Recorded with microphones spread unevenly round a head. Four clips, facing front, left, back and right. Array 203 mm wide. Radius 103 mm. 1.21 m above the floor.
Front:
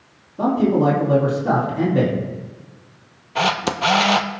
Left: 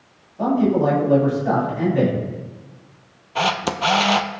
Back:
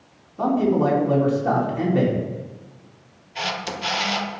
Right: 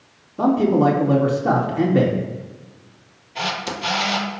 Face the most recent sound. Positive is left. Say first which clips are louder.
# left 5 dB, front 8 dB
turn(degrees=30)